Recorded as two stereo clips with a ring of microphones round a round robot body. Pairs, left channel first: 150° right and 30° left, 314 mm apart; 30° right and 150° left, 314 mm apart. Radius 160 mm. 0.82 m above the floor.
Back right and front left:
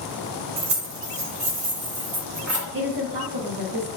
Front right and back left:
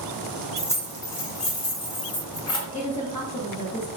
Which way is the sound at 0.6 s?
60° left.